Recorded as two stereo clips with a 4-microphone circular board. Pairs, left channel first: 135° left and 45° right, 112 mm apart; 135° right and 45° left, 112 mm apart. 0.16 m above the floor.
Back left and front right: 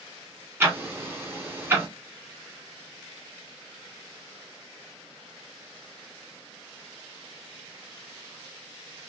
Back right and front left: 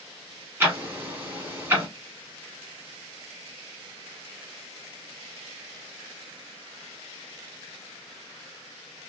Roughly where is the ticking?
Ahead.